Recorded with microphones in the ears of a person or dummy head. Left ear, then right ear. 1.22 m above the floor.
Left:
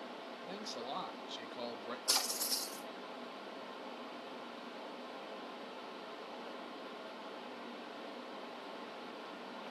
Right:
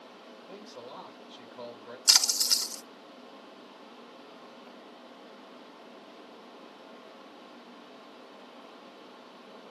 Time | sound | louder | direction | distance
0.5 | a man speaking | left 2 dB | 45° left (ahead or behind) | 1.9 m
2.1 | a splash | right 12 dB | 55° right (ahead or behind) | 1.4 m